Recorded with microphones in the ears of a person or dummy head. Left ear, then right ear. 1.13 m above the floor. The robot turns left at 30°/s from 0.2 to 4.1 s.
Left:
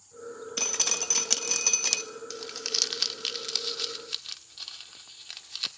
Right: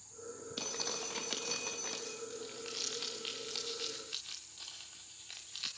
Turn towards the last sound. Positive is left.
turn(degrees=35)  # may be behind; listen again after turning